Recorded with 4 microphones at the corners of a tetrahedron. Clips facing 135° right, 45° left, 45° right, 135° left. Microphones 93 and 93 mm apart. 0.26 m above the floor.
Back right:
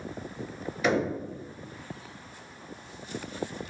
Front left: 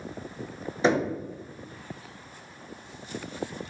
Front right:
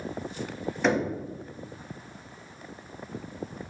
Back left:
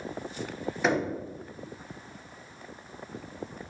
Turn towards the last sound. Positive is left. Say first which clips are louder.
# front left 2 dB, front right 2 dB
turn(degrees=50)